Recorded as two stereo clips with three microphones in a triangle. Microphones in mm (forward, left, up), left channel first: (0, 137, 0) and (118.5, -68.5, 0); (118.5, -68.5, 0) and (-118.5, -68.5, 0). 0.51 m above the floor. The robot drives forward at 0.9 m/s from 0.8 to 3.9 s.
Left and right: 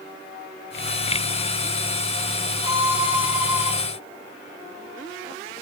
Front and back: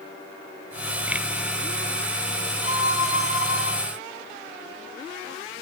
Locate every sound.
2.6 s a violin: 20° left, 6 m